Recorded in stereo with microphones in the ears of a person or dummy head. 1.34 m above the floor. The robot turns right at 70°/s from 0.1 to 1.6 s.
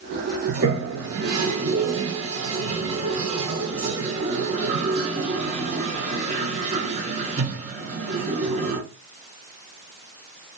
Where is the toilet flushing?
50° right (ahead or behind), 0.8 m; by 8.8 s 40° right (ahead or behind), 0.8 m.